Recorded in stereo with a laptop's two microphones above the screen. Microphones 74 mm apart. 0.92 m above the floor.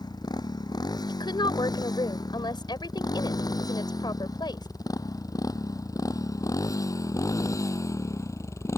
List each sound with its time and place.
0.0 s a motorcycle: 65° left (ahead or behind); by 8.8 s 40° left (ahead or behind)
1.1 s a woman speaking: 75° left (ahead or behind)